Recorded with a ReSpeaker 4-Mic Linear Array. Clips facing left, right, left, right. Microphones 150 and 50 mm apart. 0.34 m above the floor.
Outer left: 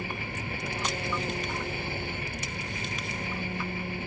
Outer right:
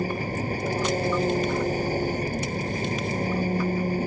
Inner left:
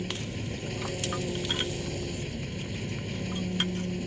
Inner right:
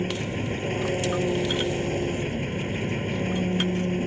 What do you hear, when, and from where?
0.0 s an engine running: 40° right (ahead or behind)